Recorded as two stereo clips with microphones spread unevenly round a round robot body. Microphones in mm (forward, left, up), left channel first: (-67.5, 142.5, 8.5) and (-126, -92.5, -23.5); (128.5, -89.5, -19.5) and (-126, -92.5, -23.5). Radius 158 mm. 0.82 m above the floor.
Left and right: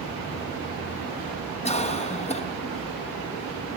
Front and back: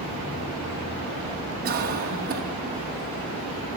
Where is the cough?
140° left, 1.2 m.